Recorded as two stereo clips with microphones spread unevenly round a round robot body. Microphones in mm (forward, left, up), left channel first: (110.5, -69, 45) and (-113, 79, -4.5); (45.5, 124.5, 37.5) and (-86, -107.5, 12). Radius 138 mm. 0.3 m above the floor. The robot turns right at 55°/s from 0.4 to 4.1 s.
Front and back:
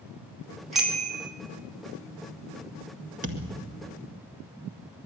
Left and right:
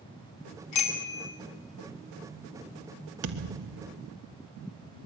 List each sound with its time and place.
0.7 s a bicycle bell: 60° left, 2.5 m; by 1.3 s 90° left, 2.5 m
3.2 s a thud: 155° right, 1.9 m; by 4.0 s 110° right, 1.9 m